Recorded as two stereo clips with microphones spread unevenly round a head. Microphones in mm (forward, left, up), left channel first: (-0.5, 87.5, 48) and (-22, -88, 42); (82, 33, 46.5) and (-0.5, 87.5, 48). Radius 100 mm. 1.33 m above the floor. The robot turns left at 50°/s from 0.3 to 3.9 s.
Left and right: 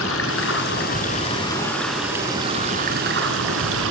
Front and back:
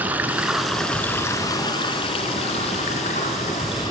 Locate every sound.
0.0 s running water: 75° left, 2.5 m; by 3.9 s 105° right, 2.5 m